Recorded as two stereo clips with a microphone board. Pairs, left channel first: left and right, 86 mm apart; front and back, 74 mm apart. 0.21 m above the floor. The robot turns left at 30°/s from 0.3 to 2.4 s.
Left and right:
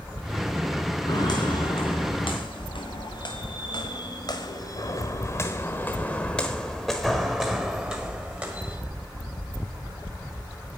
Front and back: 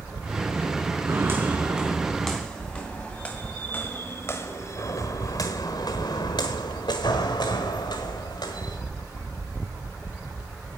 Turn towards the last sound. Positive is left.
turn(degrees=-25)